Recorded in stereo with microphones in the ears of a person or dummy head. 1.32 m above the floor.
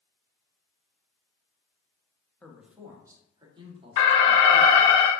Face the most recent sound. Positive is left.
turn(degrees=25)  # may be behind; listen again after turning